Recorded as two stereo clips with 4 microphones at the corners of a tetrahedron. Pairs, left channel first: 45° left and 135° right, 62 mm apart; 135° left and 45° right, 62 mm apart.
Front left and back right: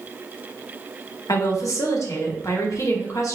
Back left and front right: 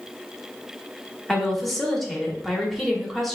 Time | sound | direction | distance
1.3 | a woman speaking | 50° left | 1.0 m